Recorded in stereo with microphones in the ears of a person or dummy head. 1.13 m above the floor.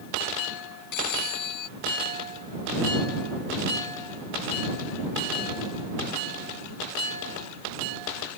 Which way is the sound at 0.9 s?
55° left (ahead or behind).